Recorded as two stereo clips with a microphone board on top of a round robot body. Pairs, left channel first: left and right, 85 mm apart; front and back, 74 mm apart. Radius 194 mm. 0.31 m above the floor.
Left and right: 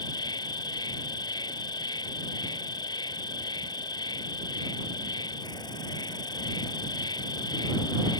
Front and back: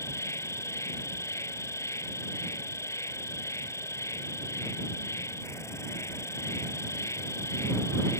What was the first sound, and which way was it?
An insect, 55° left.